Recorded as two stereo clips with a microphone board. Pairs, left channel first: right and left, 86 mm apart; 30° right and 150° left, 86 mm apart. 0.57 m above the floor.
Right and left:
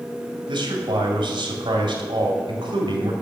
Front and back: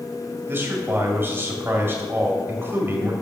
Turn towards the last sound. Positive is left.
turn(degrees=90)